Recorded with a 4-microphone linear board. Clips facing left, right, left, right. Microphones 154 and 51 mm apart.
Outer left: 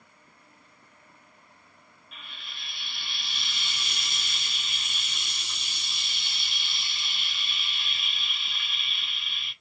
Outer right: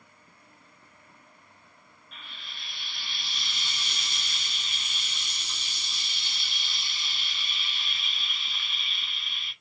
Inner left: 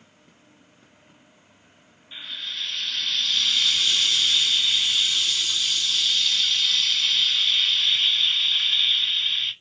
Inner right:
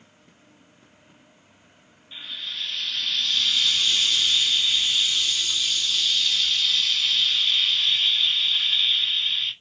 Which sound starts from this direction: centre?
Frying, at 2.1 s.